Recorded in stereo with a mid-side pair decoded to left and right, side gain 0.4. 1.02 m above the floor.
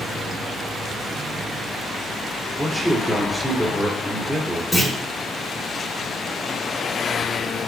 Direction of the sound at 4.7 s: 5° left.